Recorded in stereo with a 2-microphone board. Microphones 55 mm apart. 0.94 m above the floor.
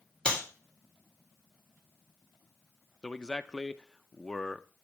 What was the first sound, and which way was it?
A clap, 10° left (ahead or behind).